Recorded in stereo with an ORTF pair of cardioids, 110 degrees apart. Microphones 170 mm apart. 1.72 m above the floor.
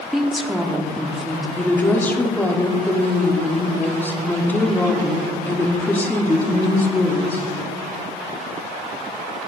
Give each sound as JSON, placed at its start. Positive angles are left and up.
{"t": 0.1, "sound": "a woman speaking", "azimuth_deg": 0, "distance_m": 0.9}
{"t": 1.6, "sound": "a woman speaking", "azimuth_deg": 10, "distance_m": 1.1}